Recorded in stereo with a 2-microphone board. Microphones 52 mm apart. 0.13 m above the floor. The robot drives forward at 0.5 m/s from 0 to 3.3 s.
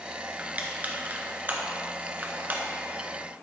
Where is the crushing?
30° right (ahead or behind), 1.5 m; by 2.6 s 35° right (ahead or behind), 1.2 m.